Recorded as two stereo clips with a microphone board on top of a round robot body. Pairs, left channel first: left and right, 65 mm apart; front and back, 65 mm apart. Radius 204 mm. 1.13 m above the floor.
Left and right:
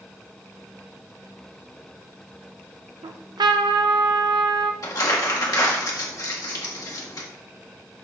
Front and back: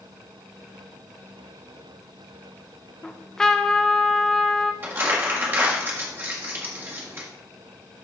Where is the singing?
I don't hear singing.